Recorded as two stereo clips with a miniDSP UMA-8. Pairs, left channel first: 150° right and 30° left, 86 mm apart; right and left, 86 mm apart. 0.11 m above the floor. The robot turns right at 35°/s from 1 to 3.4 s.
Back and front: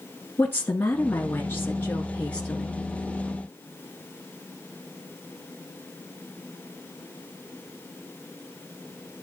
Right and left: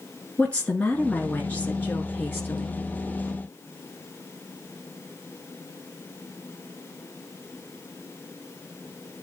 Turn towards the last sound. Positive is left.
turn(degrees=-60)